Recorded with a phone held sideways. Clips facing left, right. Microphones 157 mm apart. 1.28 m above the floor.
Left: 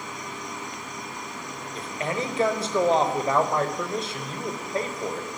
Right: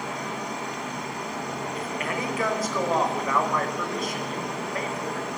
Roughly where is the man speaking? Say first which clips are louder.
Left 4 dB; left.